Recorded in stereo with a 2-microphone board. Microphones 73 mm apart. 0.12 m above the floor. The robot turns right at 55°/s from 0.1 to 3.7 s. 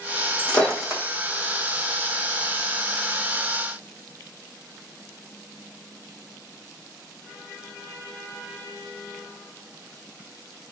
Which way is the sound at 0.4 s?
20° left (ahead or behind).